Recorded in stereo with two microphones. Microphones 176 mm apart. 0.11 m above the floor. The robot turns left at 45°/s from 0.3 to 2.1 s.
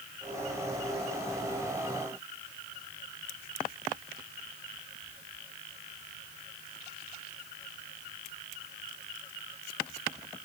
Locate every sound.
Only background noise.